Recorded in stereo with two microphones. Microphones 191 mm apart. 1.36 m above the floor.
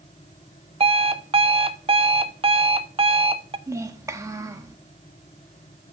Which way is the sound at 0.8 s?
30° right (ahead or behind).